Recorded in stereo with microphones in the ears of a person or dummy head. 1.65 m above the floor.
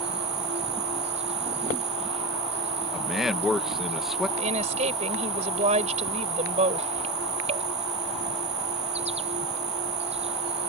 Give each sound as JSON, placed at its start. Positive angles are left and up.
{"t": 0.0, "sound": "an insect", "side_deg": -35}
{"t": 2.9, "sound": "a man speaking", "side_deg": 0}
{"t": 4.4, "sound": "a woman speaking", "side_deg": -35}